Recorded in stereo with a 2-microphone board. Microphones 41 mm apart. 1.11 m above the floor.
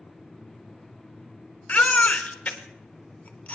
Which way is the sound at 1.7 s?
35° left (ahead or behind).